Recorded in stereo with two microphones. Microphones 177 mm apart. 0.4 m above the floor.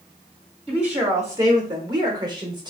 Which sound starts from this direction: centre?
A woman speaking, at 0.7 s.